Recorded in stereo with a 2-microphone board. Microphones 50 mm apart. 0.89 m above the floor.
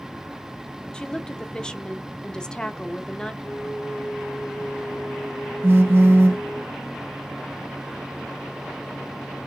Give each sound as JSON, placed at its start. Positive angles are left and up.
{"t": 0.9, "sound": "a woman speaking", "side_deg": 15, "distance_m": 0.8}
{"t": 3.4, "sound": "a flute", "side_deg": 75, "distance_m": 4.0}
{"t": 5.6, "sound": "a phone buzzing", "side_deg": -45, "distance_m": 0.7}